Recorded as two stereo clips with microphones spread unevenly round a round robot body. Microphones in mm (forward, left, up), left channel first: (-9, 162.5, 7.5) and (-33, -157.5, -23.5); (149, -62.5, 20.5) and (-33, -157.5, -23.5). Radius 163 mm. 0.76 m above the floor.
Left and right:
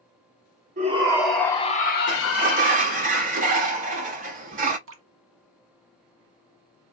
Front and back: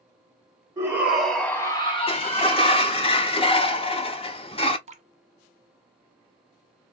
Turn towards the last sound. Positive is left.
turn(degrees=-125)